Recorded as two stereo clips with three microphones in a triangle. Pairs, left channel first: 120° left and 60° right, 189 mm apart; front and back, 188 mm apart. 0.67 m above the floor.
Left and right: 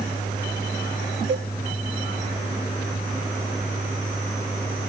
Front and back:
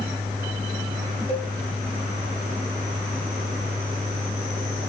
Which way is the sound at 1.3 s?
50° right.